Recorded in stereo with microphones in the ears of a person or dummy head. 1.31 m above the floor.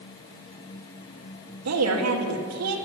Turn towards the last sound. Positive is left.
turn(degrees=-80)